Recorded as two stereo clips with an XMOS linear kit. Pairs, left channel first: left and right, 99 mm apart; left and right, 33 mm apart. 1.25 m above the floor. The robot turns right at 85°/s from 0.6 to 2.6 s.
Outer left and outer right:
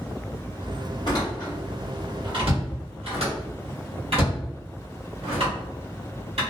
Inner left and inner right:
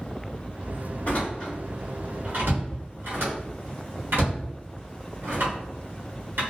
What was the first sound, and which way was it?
A door slam, 50° left (ahead or behind).